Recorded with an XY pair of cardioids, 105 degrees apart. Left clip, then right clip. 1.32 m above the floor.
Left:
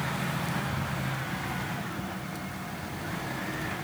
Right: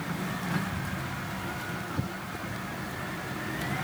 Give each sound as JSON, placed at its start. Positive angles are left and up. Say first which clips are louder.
{"t": 0.7, "sound": "ticking", "louder": "left 2 dB", "azimuth_deg": 0, "distance_m": 0.9}